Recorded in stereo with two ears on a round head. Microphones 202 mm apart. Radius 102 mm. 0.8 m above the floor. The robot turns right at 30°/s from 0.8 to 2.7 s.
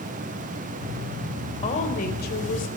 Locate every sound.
1.6 s a woman speaking: 30° left, 3 m; by 2.7 s 60° left, 3 m